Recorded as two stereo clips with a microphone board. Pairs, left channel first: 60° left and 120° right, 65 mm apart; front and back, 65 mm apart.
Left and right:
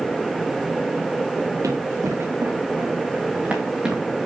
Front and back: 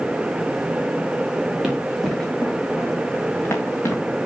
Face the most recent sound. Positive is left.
turn(degrees=-40)